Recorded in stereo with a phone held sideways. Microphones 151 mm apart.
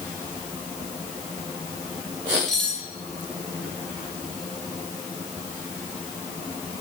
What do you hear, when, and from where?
2.5 s cutlery clinking: 5° left (ahead or behind), 1.6 m